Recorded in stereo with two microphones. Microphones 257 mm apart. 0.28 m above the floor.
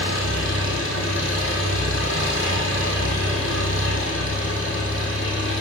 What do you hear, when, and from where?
0.0 s an engine running: 50° left (ahead or behind), 3 m